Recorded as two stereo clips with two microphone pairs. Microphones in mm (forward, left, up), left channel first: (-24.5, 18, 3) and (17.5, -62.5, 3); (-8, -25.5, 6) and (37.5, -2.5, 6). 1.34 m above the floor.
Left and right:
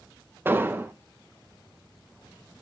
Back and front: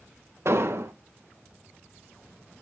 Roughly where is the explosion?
Ahead.